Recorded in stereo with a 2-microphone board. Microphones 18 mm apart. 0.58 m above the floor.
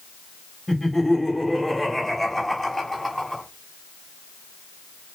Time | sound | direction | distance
0.7 | laughter | 5° left (ahead or behind) | 3.5 m